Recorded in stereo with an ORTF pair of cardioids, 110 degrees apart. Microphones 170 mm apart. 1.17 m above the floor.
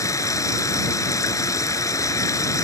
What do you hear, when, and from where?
0.0 s running water: 20° left